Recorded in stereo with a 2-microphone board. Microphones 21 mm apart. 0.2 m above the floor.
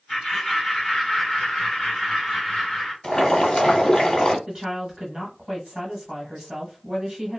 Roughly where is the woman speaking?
Right.